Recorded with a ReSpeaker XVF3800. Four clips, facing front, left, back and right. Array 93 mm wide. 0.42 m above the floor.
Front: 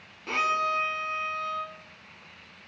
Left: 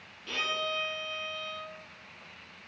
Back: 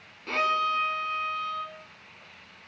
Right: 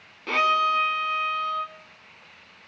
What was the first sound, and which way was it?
A violin, 80° right.